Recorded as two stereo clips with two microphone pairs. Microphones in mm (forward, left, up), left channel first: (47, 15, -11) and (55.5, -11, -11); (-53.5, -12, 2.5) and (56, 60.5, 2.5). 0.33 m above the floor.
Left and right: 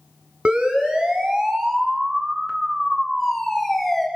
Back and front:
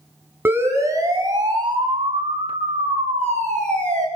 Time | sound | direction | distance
0.5 | a siren | 40° right | 3.5 m